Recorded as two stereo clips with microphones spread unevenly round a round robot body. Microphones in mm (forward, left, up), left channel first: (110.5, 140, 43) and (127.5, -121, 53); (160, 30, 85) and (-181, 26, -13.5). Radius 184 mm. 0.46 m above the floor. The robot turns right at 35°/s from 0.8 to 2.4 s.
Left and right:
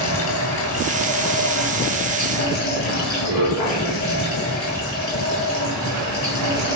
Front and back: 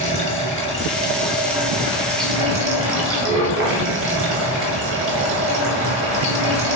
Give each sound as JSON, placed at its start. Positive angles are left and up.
{"t": 0.0, "sound": "running water", "azimuth_deg": 75, "distance_m": 3.5}